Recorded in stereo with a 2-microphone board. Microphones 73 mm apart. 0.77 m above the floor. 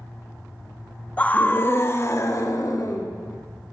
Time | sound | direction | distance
1.2 | a scream | 20° left (ahead or behind) | 1.3 m